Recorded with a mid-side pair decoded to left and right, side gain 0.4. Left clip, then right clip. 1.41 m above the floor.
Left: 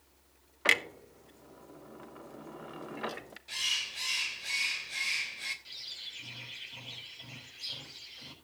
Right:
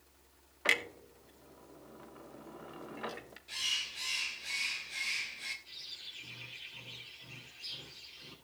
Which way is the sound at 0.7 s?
35° left.